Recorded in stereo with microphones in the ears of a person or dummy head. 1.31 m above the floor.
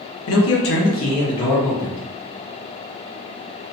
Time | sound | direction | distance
0.3 | a man speaking | 70° left (ahead or behind) | 0.7 m